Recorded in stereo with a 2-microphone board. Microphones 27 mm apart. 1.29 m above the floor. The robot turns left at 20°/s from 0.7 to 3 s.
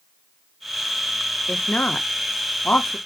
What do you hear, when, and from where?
1.5 s a woman speaking: 65° left (ahead or behind), 1.2 m; by 3.0 s 75° left (ahead or behind), 1.2 m